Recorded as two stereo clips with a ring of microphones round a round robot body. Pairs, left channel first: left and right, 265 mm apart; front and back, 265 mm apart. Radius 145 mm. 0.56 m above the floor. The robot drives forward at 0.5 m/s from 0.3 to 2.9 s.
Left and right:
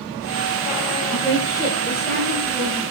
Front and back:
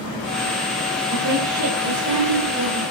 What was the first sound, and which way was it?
A woman speaking, 170° right.